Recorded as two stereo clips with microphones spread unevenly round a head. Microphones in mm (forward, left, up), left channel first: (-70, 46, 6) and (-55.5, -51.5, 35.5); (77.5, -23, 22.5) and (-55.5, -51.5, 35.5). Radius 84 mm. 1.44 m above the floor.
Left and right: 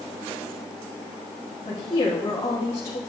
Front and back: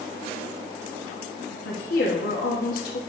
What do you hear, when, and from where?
1.6 s a woman speaking: 30° left, 2.5 m